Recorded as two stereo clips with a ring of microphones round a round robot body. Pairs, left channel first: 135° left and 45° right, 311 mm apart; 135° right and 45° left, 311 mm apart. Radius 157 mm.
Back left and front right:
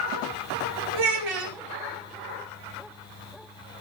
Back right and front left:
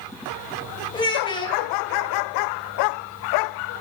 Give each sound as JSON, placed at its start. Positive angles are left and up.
{"t": 0.9, "sound": "a child speaking", "azimuth_deg": -60, "distance_m": 2.5}